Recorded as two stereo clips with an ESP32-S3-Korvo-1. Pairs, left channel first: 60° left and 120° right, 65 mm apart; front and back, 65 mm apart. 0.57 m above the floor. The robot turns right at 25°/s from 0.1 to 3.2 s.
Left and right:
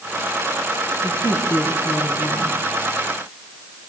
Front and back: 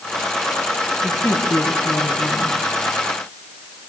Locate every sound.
1.0 s a woman speaking: 35° left, 6 m; by 2.6 s 75° left, 6 m